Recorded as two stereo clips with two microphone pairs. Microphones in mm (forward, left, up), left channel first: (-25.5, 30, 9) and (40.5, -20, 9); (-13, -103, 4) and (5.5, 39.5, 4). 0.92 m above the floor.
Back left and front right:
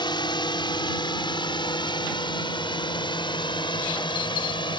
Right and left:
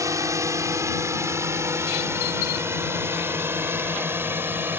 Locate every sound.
0.0 s a drone: 150° left; by 4.8 s 155° left